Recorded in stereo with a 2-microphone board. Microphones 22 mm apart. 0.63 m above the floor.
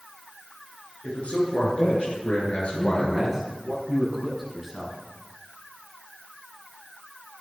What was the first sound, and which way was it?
A man speaking, 70° left (ahead or behind).